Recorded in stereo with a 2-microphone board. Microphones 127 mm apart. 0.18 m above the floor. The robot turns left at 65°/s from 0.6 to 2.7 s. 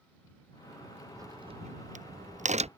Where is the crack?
25° right (ahead or behind); by 2.7 s 55° right (ahead or behind).